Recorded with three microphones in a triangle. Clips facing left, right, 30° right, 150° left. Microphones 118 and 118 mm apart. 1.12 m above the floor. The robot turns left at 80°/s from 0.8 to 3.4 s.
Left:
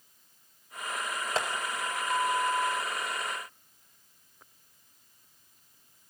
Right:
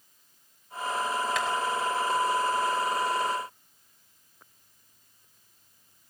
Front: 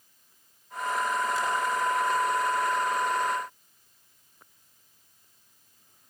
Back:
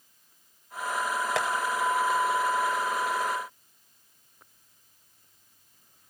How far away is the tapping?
About 5 m.